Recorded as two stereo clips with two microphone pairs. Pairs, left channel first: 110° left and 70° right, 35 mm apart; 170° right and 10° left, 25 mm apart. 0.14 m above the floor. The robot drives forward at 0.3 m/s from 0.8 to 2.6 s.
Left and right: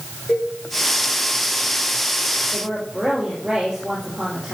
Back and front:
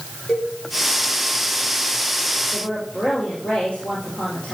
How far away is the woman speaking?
About 3.5 m.